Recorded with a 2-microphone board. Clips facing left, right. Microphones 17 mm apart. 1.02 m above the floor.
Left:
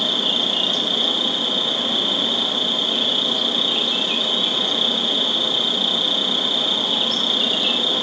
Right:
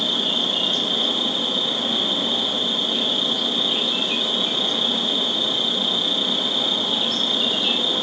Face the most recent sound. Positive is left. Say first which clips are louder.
# left 2 dB
turn(degrees=20)  # may be behind; listen again after turning